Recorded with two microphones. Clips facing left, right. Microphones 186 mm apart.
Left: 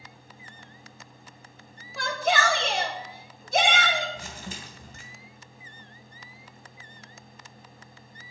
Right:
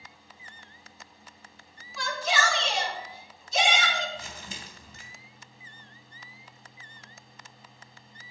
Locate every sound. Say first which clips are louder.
2.0 s a shout: left 4 dB; 55° left (ahead or behind), 1.2 m
4.2 s crumpling: left 3 dB; 50° left (ahead or behind), 1.9 m